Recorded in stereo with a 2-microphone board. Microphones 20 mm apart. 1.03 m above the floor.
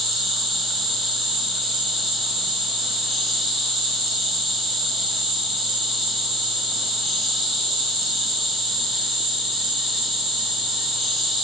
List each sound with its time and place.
0.0 s an insect: 10° right (ahead or behind), 1.4 m